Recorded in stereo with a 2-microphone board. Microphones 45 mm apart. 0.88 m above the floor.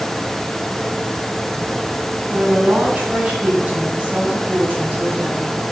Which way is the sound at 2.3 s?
30° right (ahead or behind).